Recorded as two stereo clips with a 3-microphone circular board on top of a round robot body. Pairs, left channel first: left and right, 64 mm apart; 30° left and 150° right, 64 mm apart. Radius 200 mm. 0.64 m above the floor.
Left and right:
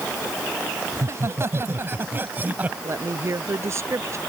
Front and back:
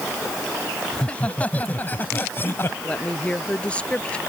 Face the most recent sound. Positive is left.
turn(degrees=-45)